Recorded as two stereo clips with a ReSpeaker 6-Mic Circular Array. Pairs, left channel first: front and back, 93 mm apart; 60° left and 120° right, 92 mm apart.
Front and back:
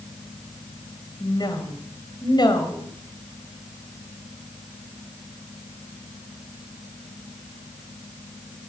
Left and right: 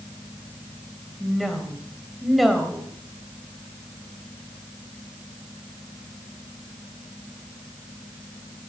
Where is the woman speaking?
30° right, 3 m.